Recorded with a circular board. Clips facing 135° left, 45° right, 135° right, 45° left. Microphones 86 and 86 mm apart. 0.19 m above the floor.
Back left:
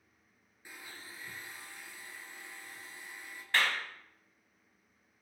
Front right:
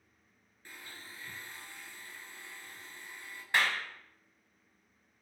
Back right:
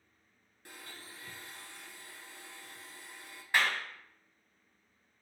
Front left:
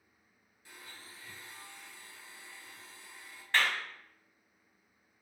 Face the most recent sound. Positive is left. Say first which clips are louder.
# front right 1 dB, even
turn(degrees=-85)